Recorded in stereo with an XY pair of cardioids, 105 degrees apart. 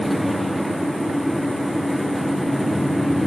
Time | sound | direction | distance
0.0 | a fan | straight ahead | 1.4 m